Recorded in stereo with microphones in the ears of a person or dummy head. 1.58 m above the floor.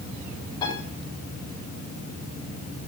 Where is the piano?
20° left (ahead or behind), 7.5 m.